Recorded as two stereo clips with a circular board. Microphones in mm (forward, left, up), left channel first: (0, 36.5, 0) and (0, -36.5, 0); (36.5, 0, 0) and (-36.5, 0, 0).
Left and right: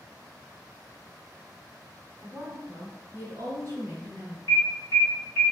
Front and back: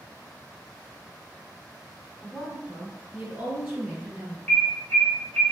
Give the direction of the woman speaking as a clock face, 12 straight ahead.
3 o'clock.